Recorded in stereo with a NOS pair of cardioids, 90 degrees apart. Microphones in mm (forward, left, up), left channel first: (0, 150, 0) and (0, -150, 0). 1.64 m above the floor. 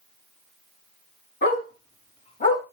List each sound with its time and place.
1.4 s a dog barking: 35° left, 5 m; by 2.6 s 25° left, 4.5 m